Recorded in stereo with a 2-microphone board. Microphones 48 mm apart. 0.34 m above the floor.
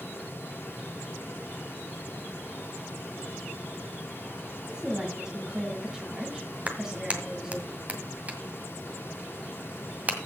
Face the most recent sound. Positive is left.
turn(degrees=-30)  # may be behind; listen again after turning